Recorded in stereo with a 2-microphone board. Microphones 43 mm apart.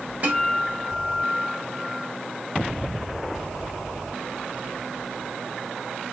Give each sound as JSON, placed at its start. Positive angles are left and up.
{"t": 0.2, "sound": "a guitar", "side_deg": -35, "distance_m": 1.0}